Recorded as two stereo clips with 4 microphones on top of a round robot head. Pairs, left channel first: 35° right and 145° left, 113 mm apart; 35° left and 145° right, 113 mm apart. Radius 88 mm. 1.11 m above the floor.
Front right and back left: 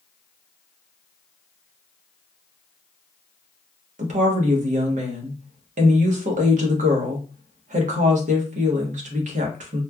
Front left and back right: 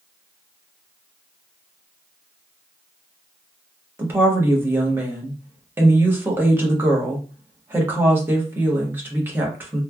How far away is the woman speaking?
About 0.9 m.